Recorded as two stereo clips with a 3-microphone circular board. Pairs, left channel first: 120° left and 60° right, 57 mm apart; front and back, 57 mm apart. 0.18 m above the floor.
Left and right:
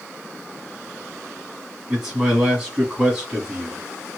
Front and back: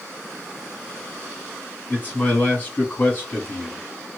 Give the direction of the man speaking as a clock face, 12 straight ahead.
12 o'clock.